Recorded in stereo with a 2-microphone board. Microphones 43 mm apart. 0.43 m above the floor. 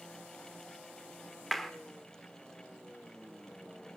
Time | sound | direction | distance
1.5 | a clap | 5° left (ahead or behind) | 1.0 m